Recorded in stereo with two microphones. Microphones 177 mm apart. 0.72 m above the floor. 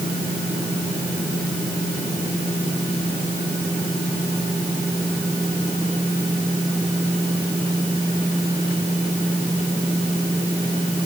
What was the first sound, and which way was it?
Only background noise.